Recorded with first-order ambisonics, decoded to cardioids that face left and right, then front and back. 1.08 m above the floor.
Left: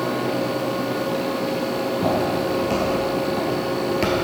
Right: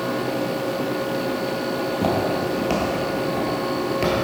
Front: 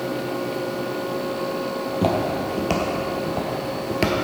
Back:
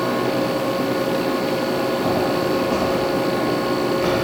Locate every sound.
1.8 s footsteps: 35° right, 2 m; by 4.1 s 15° left, 1.3 m